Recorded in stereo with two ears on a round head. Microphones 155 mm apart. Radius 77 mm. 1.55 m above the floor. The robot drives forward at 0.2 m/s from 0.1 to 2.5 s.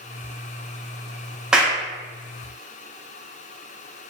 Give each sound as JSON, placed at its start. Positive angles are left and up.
{"t": 1.5, "sound": "a clap", "side_deg": -5, "distance_m": 0.5}